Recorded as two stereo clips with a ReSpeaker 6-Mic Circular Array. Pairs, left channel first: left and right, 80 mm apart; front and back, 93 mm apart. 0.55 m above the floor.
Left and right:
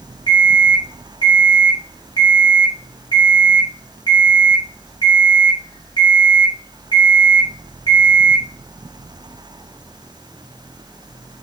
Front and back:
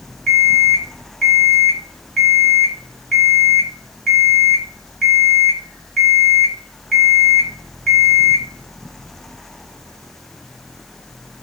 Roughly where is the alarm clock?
Left.